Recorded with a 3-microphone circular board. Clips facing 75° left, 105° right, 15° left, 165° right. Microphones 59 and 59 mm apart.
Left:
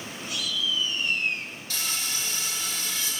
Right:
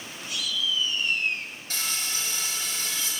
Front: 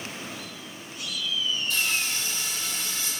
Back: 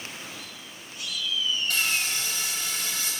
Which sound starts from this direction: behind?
Frying, at 1.7 s.